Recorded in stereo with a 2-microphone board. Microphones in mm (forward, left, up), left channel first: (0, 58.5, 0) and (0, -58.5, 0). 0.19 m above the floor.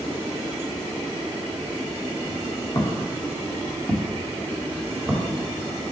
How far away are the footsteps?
About 2.5 m.